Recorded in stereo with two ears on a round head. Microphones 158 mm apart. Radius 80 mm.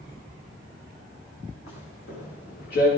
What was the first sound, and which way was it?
Footsteps, 65° left (ahead or behind).